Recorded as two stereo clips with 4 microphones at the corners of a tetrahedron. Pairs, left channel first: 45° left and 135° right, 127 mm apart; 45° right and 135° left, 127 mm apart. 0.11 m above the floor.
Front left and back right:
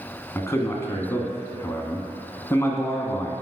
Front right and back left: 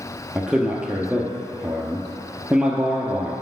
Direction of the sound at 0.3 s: 65° left.